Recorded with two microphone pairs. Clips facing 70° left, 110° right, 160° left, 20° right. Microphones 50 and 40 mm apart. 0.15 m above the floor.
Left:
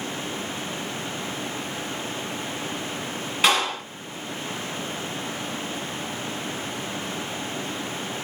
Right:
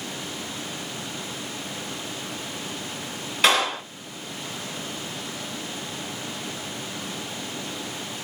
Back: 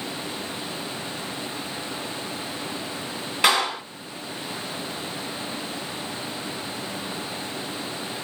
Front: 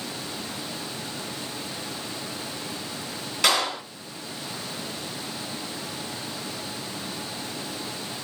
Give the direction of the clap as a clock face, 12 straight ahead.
7 o'clock.